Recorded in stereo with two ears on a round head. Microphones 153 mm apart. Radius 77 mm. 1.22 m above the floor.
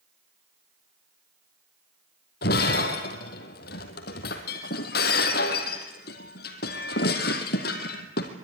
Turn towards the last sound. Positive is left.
turn(degrees=60)  # may be behind; listen again after turning